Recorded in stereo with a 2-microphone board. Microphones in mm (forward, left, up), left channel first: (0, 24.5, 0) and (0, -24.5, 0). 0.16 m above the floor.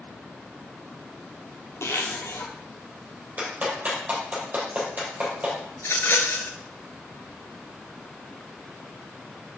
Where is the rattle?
65° left (ahead or behind), 0.8 m.